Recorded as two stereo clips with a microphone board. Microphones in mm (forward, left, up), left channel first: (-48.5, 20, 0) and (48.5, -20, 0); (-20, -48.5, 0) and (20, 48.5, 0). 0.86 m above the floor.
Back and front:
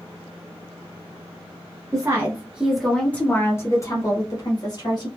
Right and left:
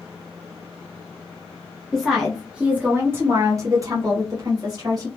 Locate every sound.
1.9 s a woman speaking: 30° right, 0.7 m; by 5.1 s 115° left, 1.4 m